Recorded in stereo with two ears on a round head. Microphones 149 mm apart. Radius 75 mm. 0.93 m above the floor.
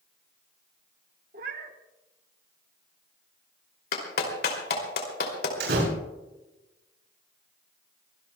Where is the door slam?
75° right (ahead or behind), 8.5 m.